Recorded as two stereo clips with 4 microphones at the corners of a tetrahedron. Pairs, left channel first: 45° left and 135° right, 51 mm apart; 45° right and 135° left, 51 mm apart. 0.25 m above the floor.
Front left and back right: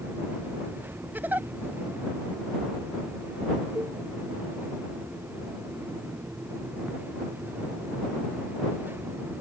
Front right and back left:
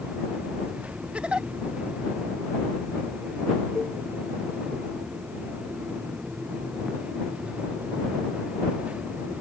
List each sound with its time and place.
1.1 s a giggle: 165° right
3.8 s a cowbell: 130° right